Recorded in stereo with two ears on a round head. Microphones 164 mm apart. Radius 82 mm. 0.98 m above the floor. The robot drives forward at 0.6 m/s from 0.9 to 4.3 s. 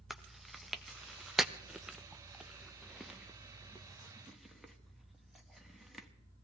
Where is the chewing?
Centre (ahead or behind), 0.9 m.